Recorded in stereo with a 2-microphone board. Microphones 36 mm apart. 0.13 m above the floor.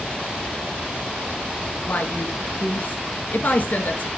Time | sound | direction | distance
1.9 | a woman speaking | 50° left (ahead or behind) | 1.8 m